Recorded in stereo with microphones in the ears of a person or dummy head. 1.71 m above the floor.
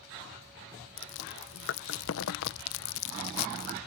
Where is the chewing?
75° left (ahead or behind).